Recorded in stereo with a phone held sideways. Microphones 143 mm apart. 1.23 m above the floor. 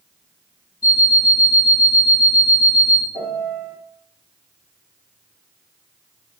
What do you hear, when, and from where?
0.8 s an alarm clock: 65° left (ahead or behind), 0.7 m
3.1 s a piano: 55° left (ahead or behind), 1.8 m